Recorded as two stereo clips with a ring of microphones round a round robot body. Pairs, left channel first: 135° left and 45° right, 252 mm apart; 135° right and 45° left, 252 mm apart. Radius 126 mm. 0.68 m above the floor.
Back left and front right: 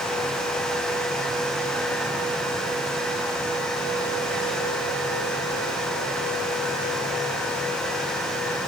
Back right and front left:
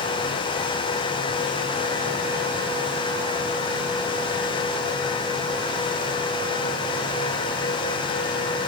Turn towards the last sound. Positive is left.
No sound to turn to.